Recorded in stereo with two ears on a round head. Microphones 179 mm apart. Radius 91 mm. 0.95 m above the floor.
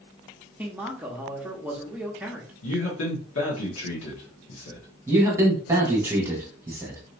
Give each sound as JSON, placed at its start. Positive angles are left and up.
{"t": 0.6, "sound": "a man speaking", "side_deg": -5, "distance_m": 1.0}
{"t": 2.6, "sound": "a man speaking", "side_deg": 80, "distance_m": 1.6}
{"t": 5.1, "sound": "a man speaking", "side_deg": -15, "distance_m": 1.4}